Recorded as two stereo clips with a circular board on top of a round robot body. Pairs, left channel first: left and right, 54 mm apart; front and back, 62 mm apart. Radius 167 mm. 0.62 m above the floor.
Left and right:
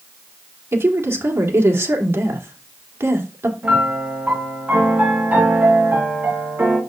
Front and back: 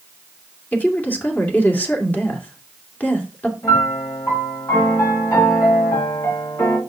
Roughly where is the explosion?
I don't hear an explosion.